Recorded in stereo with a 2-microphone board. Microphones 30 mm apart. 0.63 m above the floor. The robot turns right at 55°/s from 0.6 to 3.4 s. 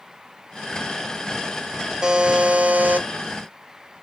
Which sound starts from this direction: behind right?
A buzzer, at 2.0 s.